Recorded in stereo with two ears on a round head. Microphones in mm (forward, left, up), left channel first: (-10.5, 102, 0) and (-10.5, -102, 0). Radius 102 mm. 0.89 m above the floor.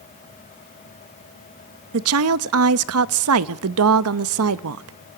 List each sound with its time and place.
1.9 s a woman speaking: 70° right (ahead or behind), 0.7 m